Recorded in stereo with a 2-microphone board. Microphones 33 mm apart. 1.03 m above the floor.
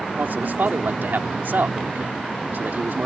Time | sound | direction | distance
0.2 | a man speaking | 75° right (ahead or behind) | ?